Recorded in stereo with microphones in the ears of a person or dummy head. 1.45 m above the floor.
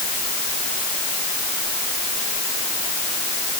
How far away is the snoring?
I don't hear snoring.